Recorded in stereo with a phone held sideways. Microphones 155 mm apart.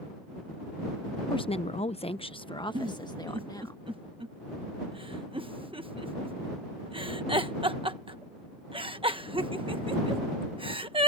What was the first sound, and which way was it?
A woman speaking, 30° left (ahead or behind).